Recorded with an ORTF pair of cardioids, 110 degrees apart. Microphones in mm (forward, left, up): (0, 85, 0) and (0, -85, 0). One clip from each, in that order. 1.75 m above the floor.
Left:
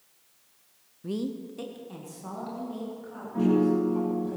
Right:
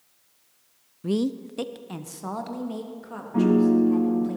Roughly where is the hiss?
No hiss in this recording.